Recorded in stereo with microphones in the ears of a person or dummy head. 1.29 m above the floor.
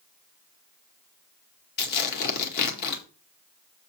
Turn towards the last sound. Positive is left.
turn(degrees=60)  # may be behind; listen again after turning